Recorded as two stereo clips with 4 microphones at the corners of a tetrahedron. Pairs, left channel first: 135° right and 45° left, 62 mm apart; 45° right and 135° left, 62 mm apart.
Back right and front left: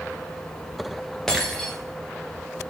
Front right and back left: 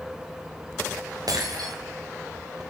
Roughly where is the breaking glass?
Behind left.